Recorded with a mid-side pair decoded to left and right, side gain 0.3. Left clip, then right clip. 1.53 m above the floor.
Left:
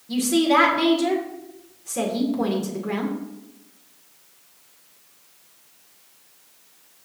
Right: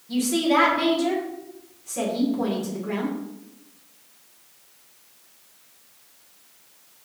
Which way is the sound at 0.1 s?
50° left.